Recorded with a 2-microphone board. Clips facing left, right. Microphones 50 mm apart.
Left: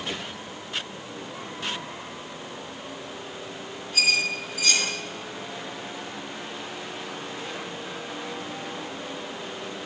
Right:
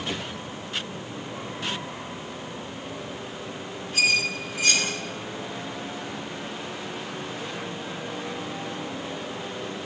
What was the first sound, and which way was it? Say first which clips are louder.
A squeak: right 1 dB; 35° right (ahead or behind).